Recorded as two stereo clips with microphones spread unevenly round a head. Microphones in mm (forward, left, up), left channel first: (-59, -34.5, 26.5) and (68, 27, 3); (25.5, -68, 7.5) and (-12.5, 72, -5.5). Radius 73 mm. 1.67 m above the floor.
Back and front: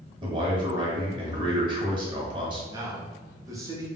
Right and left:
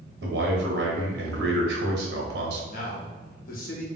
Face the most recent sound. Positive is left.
turn(degrees=-45)